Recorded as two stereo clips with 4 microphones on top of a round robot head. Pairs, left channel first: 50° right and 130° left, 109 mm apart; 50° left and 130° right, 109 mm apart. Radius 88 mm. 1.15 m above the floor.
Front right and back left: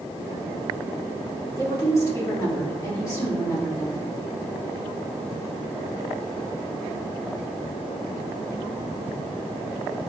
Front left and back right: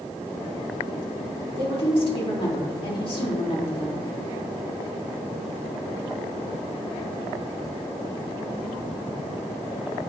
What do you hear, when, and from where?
1.6 s a woman speaking: 15° left, 2.5 m